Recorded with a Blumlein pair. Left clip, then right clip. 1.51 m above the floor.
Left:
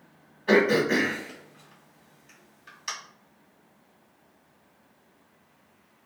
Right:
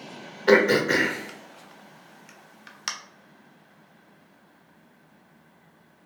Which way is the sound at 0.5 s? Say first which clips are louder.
Right 3 dB; 40° right.